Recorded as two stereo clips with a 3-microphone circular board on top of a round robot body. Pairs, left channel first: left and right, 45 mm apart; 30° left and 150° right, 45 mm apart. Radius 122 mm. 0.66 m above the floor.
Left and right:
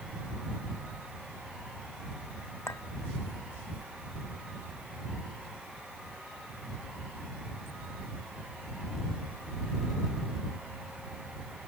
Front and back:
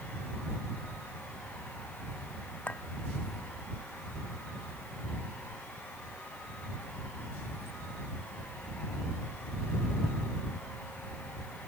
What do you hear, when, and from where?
2.7 s a clink: 90° left